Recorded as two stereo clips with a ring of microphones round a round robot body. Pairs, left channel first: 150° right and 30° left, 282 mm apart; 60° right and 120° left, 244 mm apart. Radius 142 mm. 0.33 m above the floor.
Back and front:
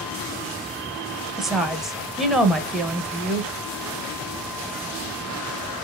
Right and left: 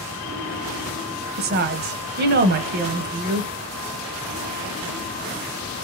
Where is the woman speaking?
120° left, 1.0 m.